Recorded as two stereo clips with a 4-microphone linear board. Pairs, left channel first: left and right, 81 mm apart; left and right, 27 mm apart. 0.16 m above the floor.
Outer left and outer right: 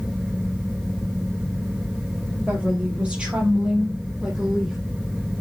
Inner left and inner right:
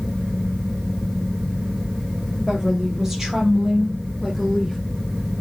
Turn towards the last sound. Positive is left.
turn(degrees=-10)  # may be behind; listen again after turning